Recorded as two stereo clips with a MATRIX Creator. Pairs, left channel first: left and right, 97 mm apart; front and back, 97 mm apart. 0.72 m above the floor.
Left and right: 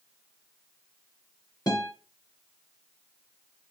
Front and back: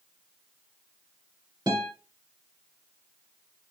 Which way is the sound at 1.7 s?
140° left.